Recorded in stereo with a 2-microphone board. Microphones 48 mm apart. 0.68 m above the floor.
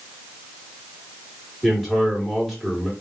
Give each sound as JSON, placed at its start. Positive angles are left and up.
{"t": 1.6, "sound": "a man speaking", "side_deg": 0, "distance_m": 1.7}